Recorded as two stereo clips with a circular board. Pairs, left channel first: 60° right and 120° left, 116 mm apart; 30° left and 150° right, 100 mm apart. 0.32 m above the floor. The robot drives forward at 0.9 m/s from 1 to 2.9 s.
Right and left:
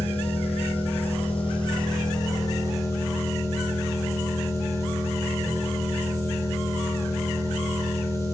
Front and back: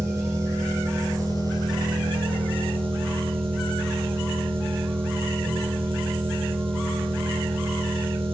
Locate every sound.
0.0 s an engine running: 90° right, 2.5 m; by 8.3 s 125° right, 3 m